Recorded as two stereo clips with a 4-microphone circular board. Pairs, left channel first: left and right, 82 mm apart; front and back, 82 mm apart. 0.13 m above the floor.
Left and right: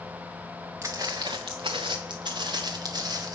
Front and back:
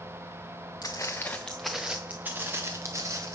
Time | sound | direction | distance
0.8 | footsteps | 40° right | 0.7 m